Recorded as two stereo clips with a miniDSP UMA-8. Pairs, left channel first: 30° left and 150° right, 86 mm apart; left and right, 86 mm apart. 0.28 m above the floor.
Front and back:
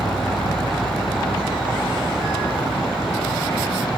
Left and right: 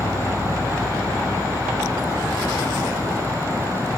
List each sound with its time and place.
0.0 s an insect: 5° right